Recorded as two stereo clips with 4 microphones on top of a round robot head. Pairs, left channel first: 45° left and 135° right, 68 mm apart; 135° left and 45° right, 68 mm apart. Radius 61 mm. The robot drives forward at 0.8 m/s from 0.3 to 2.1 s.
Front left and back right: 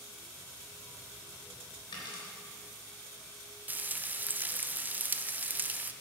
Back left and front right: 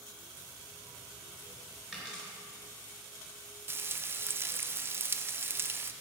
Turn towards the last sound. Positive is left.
turn(degrees=-85)